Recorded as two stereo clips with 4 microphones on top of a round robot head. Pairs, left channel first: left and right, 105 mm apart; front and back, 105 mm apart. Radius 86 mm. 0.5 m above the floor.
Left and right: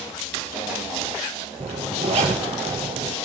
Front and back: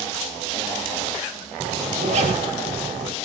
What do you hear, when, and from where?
1.6 s a zipper: 140° right, 4.5 m